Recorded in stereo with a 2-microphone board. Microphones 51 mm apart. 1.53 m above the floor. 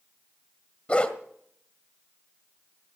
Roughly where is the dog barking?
Left.